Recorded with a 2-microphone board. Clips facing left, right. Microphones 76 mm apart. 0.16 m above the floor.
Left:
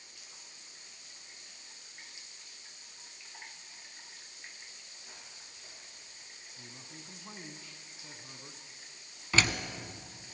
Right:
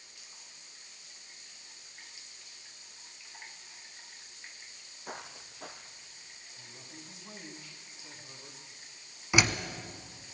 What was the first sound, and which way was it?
Footsteps, 60° right (ahead or behind).